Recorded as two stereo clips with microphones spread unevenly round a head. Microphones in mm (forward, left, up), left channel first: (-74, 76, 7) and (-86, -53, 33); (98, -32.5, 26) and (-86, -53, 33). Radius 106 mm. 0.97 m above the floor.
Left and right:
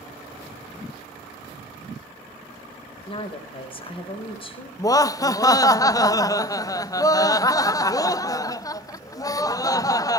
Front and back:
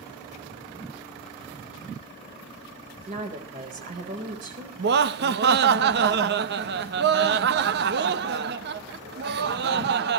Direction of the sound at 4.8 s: 145° left.